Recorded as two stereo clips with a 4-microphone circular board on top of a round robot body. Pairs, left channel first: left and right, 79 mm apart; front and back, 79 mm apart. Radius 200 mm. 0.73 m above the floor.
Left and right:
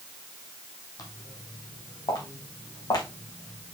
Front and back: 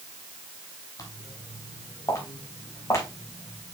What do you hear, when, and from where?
1.0 s footsteps: 50° left, 2 m; by 3.7 s 55° left, 4 m